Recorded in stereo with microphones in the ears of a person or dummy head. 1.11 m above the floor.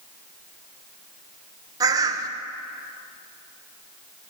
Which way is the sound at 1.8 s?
20° right (ahead or behind).